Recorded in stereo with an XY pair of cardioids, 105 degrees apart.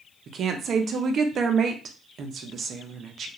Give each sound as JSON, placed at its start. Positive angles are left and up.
{"t": 0.3, "sound": "a woman speaking", "azimuth_deg": -55, "distance_m": 0.6}